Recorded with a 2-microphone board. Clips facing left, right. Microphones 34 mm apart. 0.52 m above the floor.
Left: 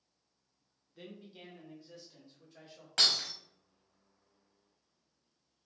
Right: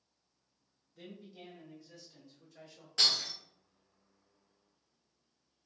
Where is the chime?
No chime in this recording.